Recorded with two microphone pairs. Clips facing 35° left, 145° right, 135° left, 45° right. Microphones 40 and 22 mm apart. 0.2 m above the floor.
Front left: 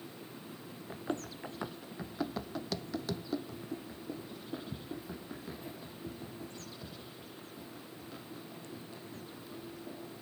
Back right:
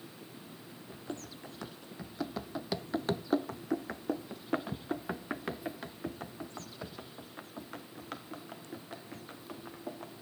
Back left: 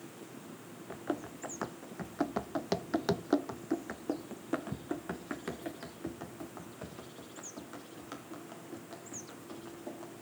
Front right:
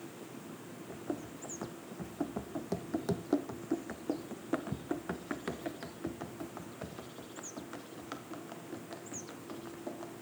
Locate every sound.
0.9 s running footsteps: 90° left, 1.2 m; by 10.1 s 120° right, 4 m